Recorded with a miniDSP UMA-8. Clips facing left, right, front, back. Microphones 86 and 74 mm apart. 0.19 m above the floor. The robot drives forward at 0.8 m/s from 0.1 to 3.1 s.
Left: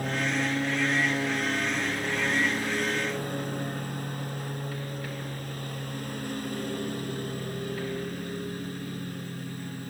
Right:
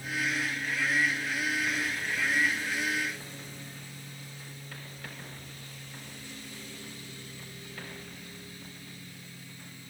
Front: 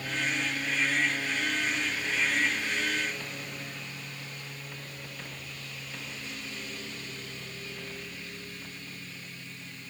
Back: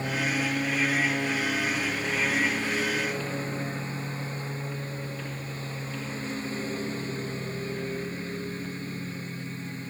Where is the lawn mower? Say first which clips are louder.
Left 4 dB, back 4 dB; 120° left; by 9.9 s 125° left.